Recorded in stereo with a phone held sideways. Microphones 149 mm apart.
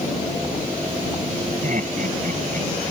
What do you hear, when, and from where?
1.6 s laughter: 60° right (ahead or behind); by 2.7 s 65° right (ahead or behind)